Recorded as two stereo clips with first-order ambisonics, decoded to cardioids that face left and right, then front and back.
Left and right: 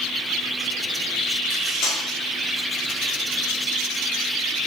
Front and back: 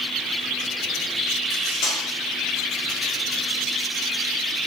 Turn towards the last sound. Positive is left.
turn(degrees=40)